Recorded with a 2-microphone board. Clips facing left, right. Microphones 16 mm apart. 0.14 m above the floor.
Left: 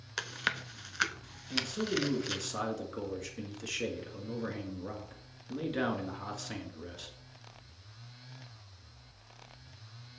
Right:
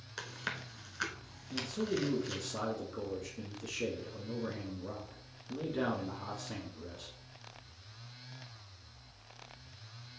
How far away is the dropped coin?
No dropped coin in this recording.